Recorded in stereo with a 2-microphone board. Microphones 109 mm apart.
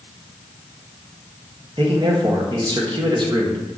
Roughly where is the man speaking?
Right.